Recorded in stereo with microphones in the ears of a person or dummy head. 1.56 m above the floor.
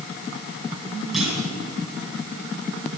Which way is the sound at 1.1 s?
Centre (ahead or behind).